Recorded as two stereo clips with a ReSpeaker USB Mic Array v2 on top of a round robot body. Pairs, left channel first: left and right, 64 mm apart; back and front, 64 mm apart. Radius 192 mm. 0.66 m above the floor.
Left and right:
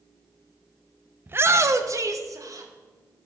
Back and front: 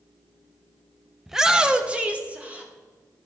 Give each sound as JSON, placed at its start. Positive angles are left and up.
{"t": 1.3, "sound": "a shout", "azimuth_deg": -85, "distance_m": 0.9}